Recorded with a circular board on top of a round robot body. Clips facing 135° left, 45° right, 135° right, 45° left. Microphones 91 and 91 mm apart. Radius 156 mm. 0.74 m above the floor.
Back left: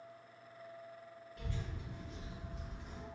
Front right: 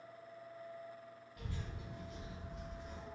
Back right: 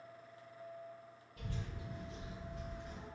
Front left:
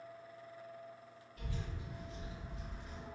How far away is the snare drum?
No snare drum in this recording.